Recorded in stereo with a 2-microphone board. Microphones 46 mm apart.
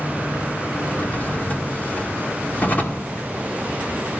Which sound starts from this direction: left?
A drawer, at 0.8 s.